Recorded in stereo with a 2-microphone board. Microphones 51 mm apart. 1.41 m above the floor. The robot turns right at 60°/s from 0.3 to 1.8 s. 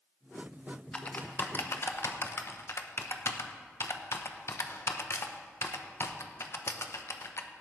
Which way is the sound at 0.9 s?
25° left (ahead or behind).